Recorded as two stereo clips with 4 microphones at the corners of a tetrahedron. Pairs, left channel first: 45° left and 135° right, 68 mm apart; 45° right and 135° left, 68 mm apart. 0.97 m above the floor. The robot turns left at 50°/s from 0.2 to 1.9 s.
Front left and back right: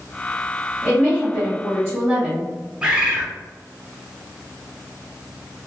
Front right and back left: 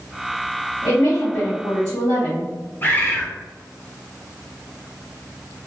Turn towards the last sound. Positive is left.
turn(degrees=-70)